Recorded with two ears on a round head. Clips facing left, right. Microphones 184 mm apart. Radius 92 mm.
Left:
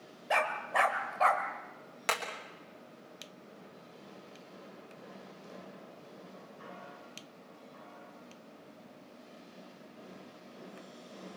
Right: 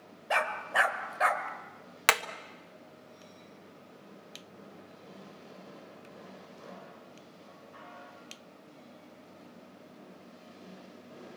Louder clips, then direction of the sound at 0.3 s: Even; centre (ahead or behind).